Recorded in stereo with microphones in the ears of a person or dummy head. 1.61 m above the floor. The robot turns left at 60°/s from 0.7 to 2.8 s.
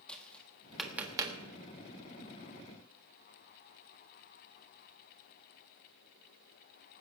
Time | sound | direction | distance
0.1 | tapping | centre (ahead or behind) | 1.4 m